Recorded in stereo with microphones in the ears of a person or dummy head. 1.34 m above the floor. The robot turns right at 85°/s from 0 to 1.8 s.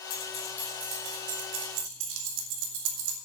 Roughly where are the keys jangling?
Left.